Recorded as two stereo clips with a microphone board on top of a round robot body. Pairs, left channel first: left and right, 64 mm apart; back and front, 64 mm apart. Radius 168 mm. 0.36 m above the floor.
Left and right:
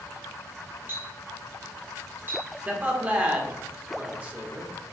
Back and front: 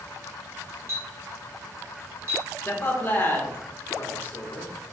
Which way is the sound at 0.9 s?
40° right.